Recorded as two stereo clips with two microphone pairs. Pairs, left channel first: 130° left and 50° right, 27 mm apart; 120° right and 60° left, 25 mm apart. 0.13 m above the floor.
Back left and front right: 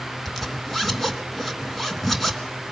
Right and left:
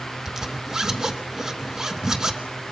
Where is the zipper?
45° left, 1.2 m.